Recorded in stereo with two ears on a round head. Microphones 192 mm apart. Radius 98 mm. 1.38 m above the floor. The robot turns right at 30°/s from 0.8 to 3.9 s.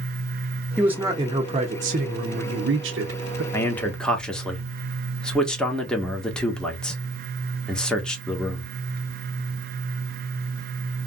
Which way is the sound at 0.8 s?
175° right.